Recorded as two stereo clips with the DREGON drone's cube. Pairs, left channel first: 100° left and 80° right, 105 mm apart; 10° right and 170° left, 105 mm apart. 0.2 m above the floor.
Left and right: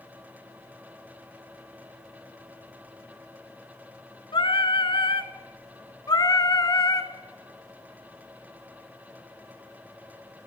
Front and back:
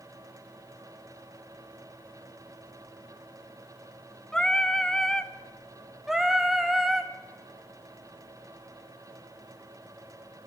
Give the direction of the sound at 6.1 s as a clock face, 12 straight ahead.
9 o'clock.